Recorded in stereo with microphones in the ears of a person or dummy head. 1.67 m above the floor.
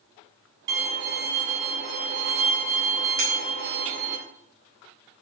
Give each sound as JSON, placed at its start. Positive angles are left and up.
{"t": 0.7, "sound": "a violin", "side_deg": -60, "distance_m": 3.0}
{"t": 3.2, "sound": "a clink", "side_deg": -65, "distance_m": 6.0}